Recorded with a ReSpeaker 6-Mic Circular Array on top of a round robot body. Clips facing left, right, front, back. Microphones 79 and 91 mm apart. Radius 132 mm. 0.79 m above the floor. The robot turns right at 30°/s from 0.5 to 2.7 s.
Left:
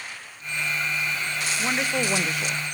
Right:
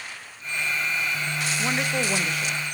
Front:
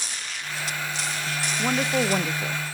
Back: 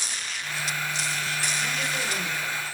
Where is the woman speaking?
5° right, 0.9 m; by 2.6 s 30° left, 0.9 m.